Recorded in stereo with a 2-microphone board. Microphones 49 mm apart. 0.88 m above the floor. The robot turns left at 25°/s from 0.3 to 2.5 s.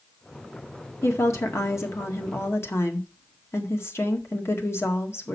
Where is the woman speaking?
105° left, 1.7 m; by 5.3 s 70° left, 1.7 m.